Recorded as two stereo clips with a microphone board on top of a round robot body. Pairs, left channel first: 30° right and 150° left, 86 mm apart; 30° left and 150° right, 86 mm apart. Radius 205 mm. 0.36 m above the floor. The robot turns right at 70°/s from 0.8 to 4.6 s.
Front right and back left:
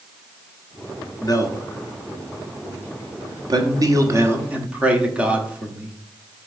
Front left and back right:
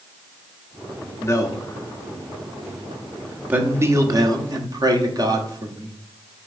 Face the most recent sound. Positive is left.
turn(degrees=-140)